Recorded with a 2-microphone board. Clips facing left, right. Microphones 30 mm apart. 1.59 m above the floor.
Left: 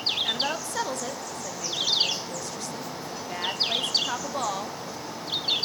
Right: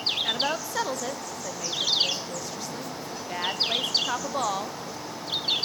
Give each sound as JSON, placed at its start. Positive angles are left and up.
{"t": 0.2, "sound": "a woman speaking", "side_deg": -10, "distance_m": 0.6}